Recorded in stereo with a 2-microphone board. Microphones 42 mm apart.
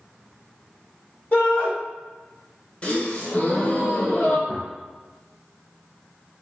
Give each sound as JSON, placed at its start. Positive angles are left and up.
{"t": 1.3, "sound": "a shout", "side_deg": 20, "distance_m": 1.9}
{"t": 2.8, "sound": "a gasp", "side_deg": 30, "distance_m": 0.8}
{"t": 4.5, "sound": "a gunshot", "side_deg": -5, "distance_m": 1.0}